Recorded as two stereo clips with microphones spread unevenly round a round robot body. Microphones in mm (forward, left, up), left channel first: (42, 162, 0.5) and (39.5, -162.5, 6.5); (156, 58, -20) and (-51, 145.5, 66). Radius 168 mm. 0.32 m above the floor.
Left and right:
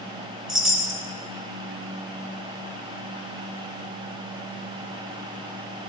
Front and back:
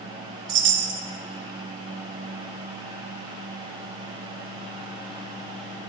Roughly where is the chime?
Behind.